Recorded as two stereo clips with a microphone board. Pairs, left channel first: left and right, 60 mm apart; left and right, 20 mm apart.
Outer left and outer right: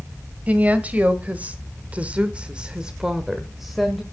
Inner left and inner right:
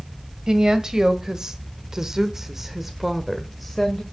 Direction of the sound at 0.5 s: 25° right (ahead or behind).